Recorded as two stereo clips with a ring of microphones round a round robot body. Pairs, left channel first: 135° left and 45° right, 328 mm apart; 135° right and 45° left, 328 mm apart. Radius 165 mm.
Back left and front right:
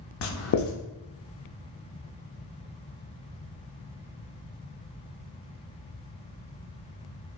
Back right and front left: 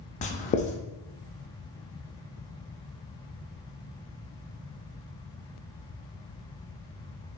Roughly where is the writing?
Behind.